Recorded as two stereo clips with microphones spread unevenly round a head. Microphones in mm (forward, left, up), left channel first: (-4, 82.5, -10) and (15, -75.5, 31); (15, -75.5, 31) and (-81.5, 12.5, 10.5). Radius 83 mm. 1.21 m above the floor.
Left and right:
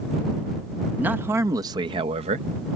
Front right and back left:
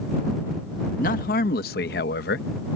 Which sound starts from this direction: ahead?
A man speaking, at 1.0 s.